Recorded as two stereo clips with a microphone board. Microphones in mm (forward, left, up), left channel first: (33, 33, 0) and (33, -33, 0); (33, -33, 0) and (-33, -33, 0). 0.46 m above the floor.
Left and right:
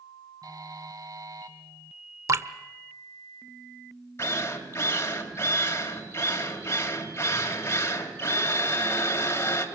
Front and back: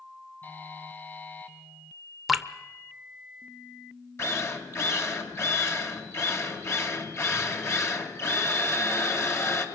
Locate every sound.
0.4 s a buzzer: 65° right, 2.5 m
2.3 s dripping: 95° right, 1.1 m
4.2 s a drill: 45° left, 3 m